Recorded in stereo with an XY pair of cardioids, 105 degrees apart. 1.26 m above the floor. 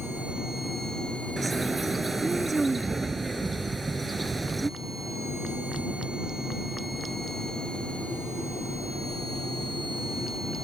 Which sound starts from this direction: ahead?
A bird, at 1.4 s.